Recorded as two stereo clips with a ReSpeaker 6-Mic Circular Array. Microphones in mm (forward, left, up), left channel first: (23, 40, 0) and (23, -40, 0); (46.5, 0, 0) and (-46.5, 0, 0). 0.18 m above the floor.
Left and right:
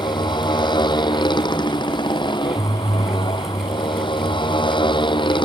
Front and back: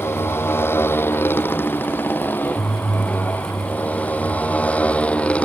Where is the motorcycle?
65° left; by 5.5 s 80° left.